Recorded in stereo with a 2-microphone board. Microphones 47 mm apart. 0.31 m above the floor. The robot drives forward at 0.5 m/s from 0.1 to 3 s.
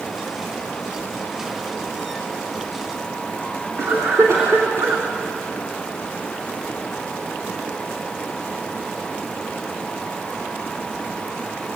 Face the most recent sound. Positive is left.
turn(degrees=-65)  # may be behind; listen again after turning